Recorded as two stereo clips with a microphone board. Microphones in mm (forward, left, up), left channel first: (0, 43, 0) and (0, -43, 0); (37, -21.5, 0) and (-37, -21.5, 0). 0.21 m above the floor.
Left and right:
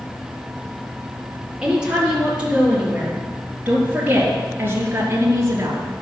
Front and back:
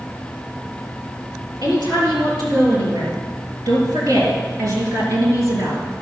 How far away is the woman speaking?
About 5 m.